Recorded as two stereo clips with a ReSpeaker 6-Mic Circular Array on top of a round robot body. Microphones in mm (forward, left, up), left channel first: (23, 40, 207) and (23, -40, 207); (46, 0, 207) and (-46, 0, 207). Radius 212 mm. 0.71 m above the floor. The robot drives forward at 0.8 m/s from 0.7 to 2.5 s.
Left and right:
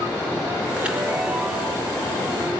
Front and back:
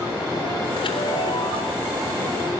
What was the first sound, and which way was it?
A chime, 15° right.